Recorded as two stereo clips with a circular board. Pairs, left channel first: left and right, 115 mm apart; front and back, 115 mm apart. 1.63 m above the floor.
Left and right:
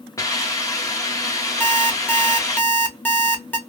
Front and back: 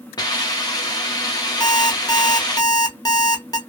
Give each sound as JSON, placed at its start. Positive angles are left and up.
{"t": 0.2, "sound": "a hiss", "azimuth_deg": 40, "distance_m": 0.8}
{"t": 1.6, "sound": "an alarm clock", "azimuth_deg": 25, "distance_m": 1.0}